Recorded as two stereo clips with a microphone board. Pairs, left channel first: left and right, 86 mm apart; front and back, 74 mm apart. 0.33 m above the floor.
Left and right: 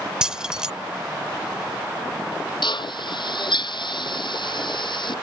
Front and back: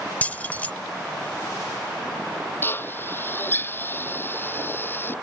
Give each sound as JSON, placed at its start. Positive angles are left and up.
{"t": 0.2, "sound": "keys jangling", "azimuth_deg": -25}
{"t": 2.6, "sound": "a drill", "azimuth_deg": 65}